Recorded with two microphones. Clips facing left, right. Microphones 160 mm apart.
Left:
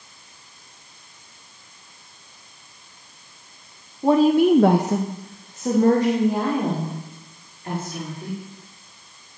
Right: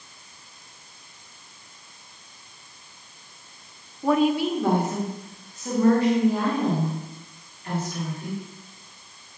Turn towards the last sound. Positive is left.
turn(degrees=30)  # may be behind; listen again after turning